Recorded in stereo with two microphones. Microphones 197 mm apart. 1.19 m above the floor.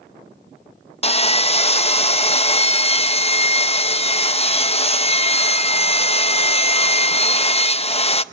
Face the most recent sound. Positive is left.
turn(degrees=30)  # may be behind; listen again after turning